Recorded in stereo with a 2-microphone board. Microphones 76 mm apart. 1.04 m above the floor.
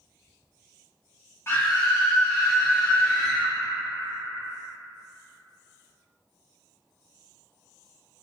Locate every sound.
1.5 s a scream: 35° left (ahead or behind), 1.2 m; by 3.5 s 30° right (ahead or behind), 1.3 m